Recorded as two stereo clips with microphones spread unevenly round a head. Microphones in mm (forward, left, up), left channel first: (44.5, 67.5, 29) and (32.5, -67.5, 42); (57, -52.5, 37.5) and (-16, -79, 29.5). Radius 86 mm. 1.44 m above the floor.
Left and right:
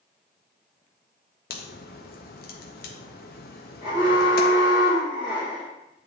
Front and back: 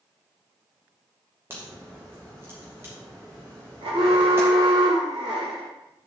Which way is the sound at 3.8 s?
160° right.